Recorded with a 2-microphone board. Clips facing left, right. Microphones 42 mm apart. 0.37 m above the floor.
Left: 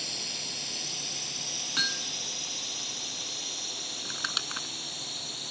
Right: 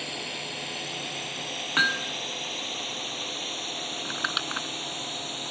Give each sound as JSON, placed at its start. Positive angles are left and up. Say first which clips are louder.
{"t": 0.0, "sound": "a drone", "louder": "right 4 dB", "side_deg": -30}
{"t": 1.8, "sound": "hammering", "louder": "right 8 dB", "side_deg": -40}
{"t": 4.0, "sound": "crumpling", "louder": "right 4 dB", "side_deg": -20}